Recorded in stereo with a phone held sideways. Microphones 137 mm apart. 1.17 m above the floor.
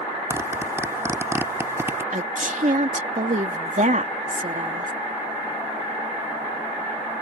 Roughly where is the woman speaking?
Right.